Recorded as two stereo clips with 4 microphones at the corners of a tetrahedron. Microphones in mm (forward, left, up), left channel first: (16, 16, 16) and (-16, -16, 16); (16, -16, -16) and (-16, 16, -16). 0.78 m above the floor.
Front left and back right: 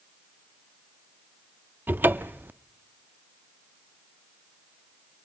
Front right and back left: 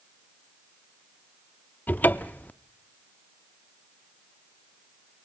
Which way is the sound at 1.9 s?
95° right.